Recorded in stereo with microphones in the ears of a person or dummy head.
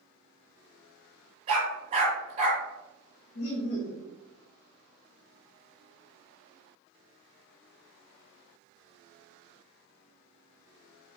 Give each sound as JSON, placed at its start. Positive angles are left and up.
{"t": 1.5, "sound": "a dog barking", "side_deg": -35, "distance_m": 1.4}
{"t": 3.4, "sound": "laughter", "side_deg": 70, "distance_m": 0.9}